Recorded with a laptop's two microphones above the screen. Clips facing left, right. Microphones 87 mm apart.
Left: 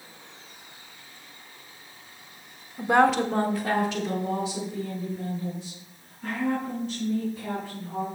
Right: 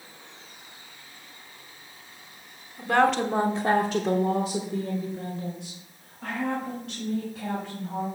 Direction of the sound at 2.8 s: 25° left (ahead or behind).